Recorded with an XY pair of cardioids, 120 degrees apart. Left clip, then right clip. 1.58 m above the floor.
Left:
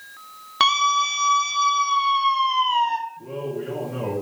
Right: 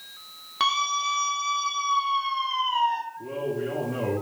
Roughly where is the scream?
Ahead left.